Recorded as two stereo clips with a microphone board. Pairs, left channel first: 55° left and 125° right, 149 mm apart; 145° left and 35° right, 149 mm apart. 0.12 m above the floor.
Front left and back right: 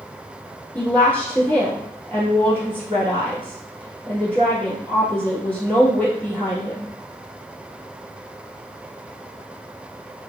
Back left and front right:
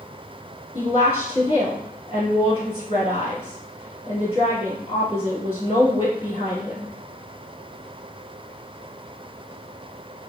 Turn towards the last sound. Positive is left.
turn(degrees=125)